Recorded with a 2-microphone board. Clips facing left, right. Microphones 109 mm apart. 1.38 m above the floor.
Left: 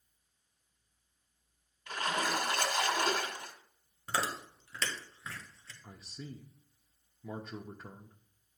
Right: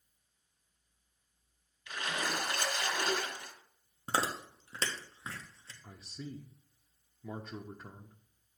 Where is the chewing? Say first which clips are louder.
Right 1 dB; 30° right (ahead or behind), 1.3 m.